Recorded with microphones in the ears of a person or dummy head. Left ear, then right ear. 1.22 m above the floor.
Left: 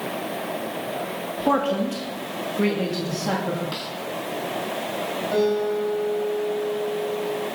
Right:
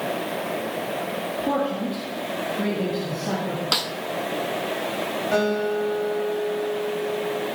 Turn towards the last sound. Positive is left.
turn(degrees=-25)  # may be behind; listen again after turning